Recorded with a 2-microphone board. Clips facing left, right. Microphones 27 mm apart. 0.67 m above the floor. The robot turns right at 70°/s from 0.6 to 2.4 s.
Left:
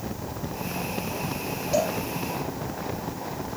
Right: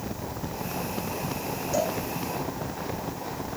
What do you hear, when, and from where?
1.7 s a cowbell: 70° left (ahead or behind), 7 m; by 1.9 s 85° left, 7 m